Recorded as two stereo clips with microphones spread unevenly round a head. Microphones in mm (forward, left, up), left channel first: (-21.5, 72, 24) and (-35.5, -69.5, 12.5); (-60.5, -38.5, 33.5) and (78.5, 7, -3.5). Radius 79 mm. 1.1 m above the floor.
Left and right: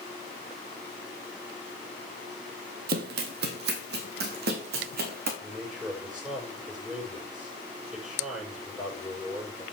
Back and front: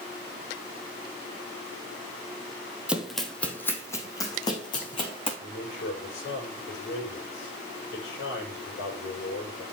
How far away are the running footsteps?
About 1.9 m.